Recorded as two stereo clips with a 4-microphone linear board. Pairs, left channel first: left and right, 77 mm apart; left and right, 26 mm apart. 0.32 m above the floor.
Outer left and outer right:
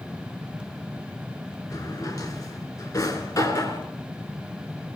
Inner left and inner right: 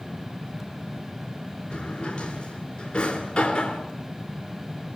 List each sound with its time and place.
1.7 s a drawer: 45° left (ahead or behind), 3 m